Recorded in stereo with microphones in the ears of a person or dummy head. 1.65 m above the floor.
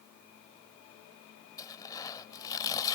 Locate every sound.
1.6 s tearing paper: 20° left (ahead or behind)